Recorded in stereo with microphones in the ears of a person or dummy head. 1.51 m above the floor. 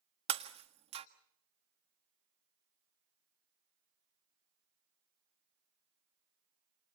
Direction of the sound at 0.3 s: 35° right (ahead or behind).